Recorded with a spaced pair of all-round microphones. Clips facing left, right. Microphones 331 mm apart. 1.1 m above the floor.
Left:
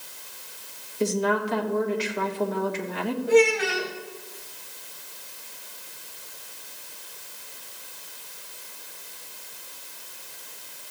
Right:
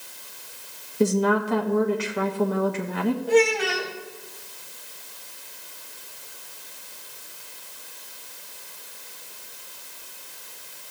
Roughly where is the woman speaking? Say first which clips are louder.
Right 4 dB; right.